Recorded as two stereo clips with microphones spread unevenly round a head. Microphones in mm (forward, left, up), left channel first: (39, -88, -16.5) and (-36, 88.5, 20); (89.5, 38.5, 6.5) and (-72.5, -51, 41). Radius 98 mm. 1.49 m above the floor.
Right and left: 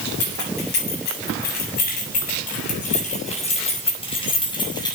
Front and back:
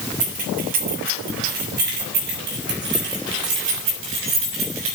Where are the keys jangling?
105° right, 7.5 m; by 5.0 s 140° right, 6.5 m.